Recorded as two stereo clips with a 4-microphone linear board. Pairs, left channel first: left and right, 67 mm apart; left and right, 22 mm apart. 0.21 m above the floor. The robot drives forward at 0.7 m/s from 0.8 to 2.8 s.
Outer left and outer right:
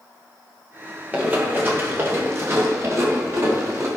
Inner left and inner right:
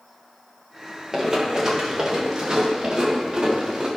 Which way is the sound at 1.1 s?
25° right (ahead or behind).